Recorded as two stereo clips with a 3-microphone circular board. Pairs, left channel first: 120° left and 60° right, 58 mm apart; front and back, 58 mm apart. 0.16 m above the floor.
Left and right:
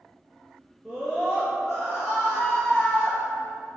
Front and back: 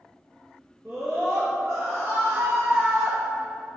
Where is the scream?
145° right, 2 m.